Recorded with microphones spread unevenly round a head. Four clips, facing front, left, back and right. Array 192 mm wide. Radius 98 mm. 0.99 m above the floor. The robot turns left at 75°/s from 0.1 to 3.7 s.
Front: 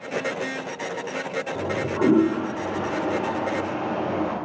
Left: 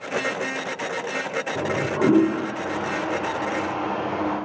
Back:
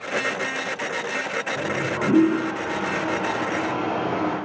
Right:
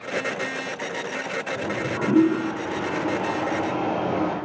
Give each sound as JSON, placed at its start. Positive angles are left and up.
{"t": 1.6, "sound": "a toilet flushing", "azimuth_deg": 75, "distance_m": 2.5}